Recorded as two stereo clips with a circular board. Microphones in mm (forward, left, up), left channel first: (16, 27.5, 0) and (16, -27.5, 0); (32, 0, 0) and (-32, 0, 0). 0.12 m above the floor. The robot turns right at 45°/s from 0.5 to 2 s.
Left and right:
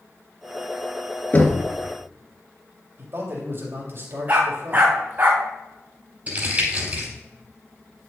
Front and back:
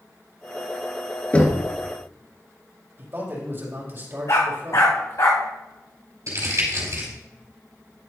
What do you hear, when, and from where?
1.3 s knocking: 55° left, 1.8 m; by 1.7 s 70° left, 1.8 m
3.0 s a man speaking: 125° right, 4.5 m
4.3 s a dog barking: 35° right, 3 m
6.3 s crumpling: 150° right, 4.5 m